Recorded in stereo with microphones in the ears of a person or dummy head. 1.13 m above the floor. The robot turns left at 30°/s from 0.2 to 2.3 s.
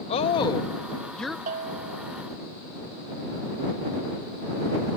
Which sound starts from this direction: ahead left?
A woman speaking, at 0.1 s.